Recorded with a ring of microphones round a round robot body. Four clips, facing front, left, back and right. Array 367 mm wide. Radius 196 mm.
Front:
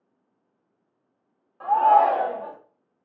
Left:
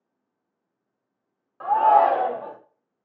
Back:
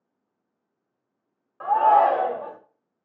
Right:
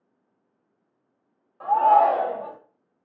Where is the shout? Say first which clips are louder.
Even, even; 140° left, 0.9 m.